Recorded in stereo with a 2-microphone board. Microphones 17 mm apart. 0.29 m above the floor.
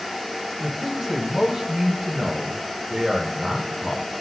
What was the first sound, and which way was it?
A man speaking, 30° right (ahead or behind).